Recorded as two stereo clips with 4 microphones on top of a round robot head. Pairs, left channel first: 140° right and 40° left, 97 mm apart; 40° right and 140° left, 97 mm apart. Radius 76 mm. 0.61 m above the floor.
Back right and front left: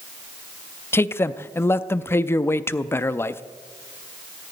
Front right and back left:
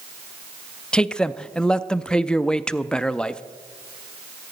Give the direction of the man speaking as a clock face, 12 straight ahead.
4 o'clock.